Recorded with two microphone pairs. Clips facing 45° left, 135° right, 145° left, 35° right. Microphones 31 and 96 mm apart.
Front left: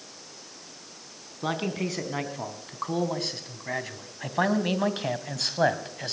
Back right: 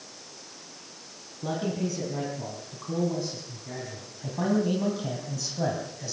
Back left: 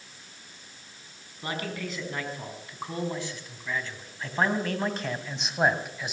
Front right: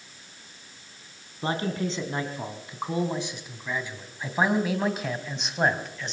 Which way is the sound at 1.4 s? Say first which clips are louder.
Front left 1 dB, front right 6 dB; 25° left.